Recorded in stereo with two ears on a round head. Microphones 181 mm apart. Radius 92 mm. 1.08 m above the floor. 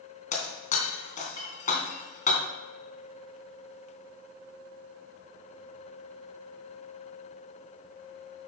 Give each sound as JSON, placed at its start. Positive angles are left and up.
{"t": 0.3, "sound": "breaking glass", "side_deg": 40, "distance_m": 2.5}